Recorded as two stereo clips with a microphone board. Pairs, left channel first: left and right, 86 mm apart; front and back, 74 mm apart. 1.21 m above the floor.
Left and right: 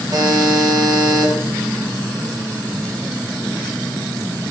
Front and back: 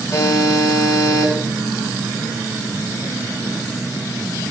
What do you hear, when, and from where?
0.1 s a buzzer: 50° right, 3 m